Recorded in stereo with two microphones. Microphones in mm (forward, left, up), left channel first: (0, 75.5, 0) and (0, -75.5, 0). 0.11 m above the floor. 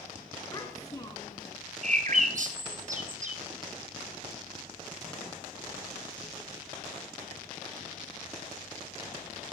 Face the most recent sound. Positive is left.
turn(degrees=-60)  # may be behind; listen again after turning